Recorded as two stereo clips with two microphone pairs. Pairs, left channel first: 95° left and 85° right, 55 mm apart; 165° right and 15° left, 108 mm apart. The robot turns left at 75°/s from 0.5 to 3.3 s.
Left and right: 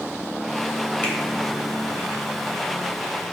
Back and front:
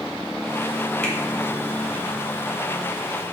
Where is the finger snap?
120° left, 1.0 m; by 1.1 s 110° left, 1.0 m.